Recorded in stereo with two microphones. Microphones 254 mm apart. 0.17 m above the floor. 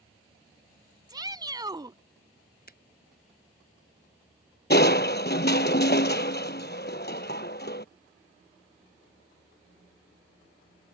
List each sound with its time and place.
1.1 s a shout: 15° right (ahead or behind)
2.7 s a finger snap: 40° left (ahead or behind)
4.7 s crushing: 40° left (ahead or behind)